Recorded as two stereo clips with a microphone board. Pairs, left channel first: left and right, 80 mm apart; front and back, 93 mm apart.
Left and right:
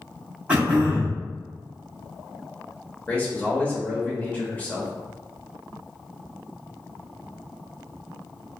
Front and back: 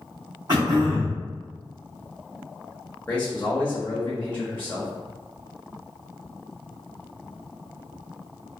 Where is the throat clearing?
160° right, 1.4 m.